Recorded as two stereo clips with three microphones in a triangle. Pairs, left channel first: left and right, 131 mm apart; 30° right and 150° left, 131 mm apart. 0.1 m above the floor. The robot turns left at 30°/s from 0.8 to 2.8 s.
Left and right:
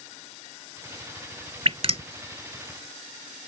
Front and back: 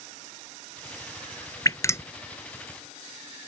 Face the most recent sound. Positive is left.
turn(degrees=-115)